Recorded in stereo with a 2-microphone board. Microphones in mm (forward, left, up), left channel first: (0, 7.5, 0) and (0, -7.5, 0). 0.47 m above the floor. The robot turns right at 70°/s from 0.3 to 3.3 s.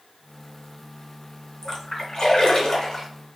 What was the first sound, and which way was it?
A splash, 25° left.